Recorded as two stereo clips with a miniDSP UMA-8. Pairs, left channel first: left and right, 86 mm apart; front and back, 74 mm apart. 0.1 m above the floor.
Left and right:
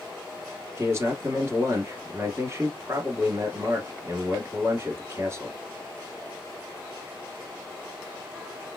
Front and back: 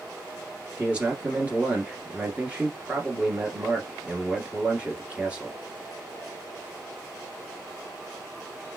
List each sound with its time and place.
0.8 s a man speaking: 120° right, 1.4 m